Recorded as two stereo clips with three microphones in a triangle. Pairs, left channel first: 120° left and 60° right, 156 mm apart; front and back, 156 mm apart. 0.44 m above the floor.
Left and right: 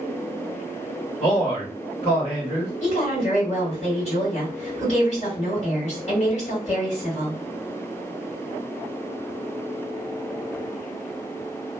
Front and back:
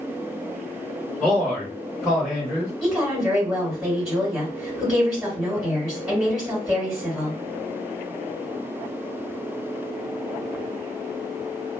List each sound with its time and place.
1.2 s a man speaking: 95° left, 1.2 m
2.8 s a woman speaking: 95° left, 2 m